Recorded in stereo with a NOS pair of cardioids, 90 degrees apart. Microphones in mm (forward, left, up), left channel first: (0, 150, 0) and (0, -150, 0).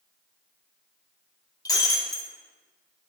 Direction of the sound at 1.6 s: 10° left.